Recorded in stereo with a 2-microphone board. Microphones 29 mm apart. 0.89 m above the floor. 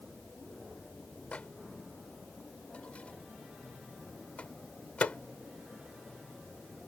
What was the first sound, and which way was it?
A microwave, 50° left (ahead or behind).